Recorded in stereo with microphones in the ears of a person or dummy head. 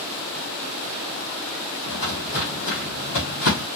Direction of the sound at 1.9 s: 35° left (ahead or behind).